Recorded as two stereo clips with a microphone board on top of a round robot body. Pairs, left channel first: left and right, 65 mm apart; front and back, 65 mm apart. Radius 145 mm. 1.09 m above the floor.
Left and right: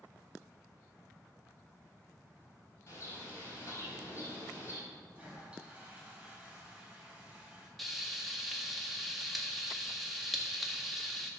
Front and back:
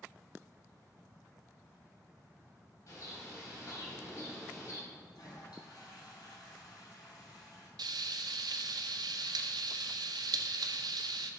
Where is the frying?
Straight behind, 0.8 m.